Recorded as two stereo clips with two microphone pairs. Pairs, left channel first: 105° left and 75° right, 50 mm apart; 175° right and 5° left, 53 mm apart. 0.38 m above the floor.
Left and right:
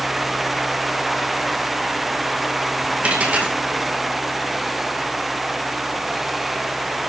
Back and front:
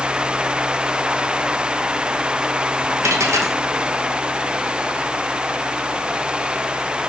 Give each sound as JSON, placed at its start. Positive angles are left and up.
{"t": 3.0, "sound": "a dropped coin", "azimuth_deg": -15, "distance_m": 2.5}